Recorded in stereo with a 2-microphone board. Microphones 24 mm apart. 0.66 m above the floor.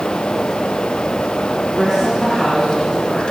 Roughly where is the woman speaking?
Centre.